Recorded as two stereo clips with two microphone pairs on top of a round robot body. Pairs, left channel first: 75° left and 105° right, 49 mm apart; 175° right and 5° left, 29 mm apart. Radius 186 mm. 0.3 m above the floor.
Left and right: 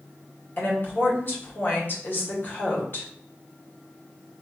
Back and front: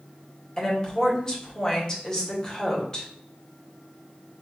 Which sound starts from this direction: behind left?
A woman speaking, at 0.6 s.